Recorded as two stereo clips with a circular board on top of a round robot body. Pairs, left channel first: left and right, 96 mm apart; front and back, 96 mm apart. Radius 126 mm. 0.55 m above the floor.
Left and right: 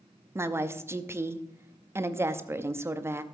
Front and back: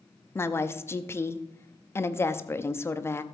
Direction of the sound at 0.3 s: 45° right.